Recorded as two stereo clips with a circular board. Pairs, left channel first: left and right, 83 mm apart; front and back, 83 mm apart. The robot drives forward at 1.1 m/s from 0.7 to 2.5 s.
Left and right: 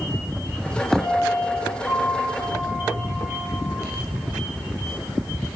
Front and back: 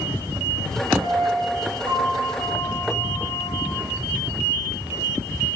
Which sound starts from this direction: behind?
A piano, at 1.0 s.